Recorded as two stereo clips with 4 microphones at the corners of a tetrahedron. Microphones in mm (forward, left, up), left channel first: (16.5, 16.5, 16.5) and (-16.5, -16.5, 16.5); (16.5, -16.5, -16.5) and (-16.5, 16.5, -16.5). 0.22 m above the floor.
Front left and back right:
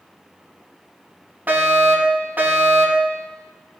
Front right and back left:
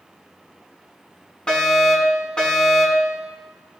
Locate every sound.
1.5 s a fire alarm: 105° right, 3 m